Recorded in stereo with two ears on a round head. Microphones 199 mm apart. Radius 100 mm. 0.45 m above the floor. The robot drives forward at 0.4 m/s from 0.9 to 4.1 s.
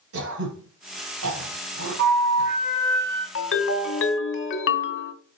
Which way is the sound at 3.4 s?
55° left (ahead or behind).